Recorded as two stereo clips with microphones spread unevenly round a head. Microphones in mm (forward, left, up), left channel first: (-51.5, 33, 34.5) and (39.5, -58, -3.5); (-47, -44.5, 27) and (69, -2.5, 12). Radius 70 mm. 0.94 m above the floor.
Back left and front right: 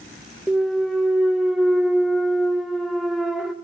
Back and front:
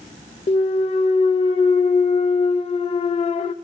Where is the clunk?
125° right, 0.6 m.